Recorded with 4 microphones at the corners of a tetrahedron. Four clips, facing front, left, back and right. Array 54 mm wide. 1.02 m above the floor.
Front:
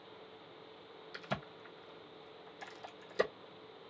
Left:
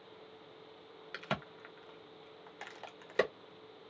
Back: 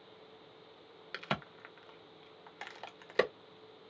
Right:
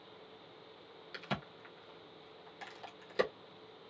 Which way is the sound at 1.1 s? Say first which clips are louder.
Left 2 dB, back 4 dB; 155° left.